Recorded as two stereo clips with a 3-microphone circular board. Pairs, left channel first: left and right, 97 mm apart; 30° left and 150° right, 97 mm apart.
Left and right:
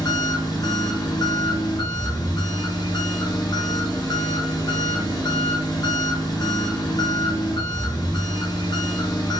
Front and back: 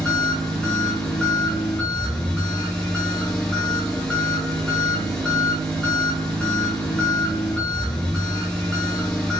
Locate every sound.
0.0 s an engine running: 105° left, 1.2 m